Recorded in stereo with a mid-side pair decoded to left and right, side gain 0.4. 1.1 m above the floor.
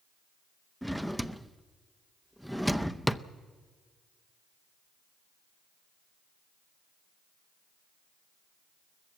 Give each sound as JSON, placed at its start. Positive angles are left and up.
{"t": 0.8, "sound": "a drawer", "azimuth_deg": 0, "distance_m": 0.7}